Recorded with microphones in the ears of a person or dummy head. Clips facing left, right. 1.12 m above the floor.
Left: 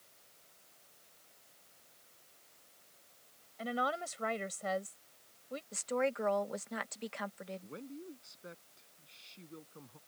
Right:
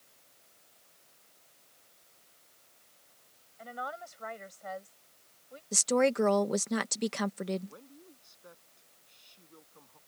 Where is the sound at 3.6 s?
55° left (ahead or behind).